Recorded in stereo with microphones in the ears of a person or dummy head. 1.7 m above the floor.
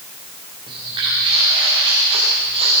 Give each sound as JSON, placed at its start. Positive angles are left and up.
{"t": 0.7, "sound": "footsteps", "side_deg": -25, "distance_m": 9.0}